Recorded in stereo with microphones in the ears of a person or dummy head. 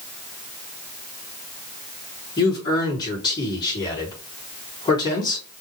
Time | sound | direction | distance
2.4 | a man speaking | 25° left (ahead or behind) | 4 m